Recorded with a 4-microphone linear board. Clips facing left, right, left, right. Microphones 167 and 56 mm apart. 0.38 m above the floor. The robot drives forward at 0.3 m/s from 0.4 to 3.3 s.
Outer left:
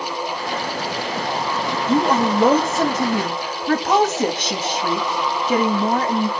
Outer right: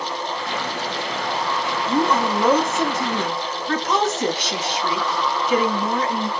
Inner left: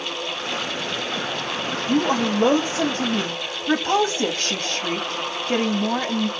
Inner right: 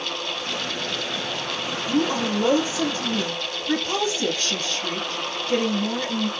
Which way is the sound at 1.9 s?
60° left (ahead or behind).